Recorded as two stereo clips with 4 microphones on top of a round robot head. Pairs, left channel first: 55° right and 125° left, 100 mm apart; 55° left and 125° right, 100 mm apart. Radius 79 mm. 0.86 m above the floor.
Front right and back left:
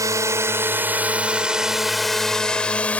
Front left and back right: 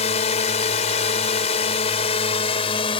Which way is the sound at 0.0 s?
65° left.